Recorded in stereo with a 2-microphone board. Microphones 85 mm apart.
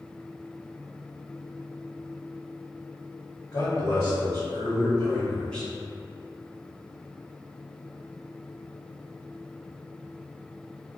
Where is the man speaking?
50° left (ahead or behind), 1.6 m; by 5.7 s 5° left (ahead or behind), 1.7 m.